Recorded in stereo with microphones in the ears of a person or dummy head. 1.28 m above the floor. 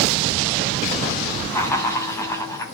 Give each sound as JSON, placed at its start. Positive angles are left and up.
{"t": 1.5, "sound": "laughter", "side_deg": 15, "distance_m": 8.0}